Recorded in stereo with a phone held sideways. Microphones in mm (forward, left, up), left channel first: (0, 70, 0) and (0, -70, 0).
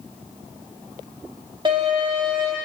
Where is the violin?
35° right (ahead or behind), 1.9 m.